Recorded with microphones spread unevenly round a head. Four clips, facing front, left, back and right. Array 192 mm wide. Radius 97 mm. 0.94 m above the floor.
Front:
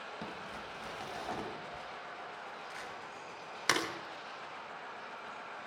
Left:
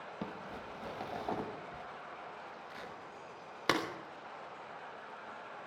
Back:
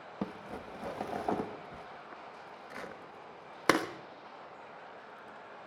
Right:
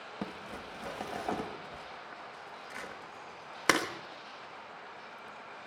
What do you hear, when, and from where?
0.2 s crumpling: 160° right, 1.2 m